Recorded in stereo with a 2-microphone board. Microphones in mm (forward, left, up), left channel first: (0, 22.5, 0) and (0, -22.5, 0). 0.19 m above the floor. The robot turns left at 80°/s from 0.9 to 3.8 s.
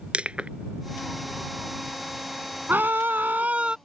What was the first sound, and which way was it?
Crushing, 25° right (ahead or behind).